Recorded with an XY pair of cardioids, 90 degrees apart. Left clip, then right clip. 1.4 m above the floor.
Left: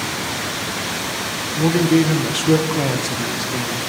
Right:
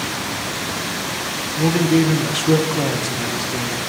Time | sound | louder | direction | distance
1.6 | a man speaking | left 1 dB | 5° left | 1.3 m